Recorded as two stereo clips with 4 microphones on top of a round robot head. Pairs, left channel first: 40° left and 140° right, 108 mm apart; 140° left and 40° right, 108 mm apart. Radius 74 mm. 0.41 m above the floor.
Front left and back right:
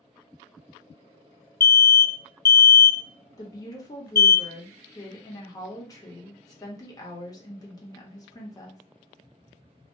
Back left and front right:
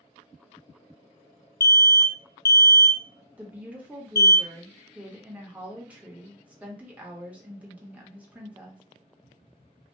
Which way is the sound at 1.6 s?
95° left.